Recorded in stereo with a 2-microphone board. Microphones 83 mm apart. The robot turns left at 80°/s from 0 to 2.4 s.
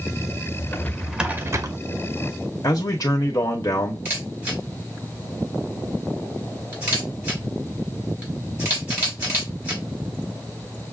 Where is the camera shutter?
25° right (ahead or behind), 3 m.